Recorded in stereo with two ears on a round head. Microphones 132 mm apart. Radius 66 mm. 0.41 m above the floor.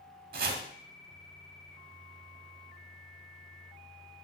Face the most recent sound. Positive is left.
turn(degrees=-65)  # may be behind; listen again after turning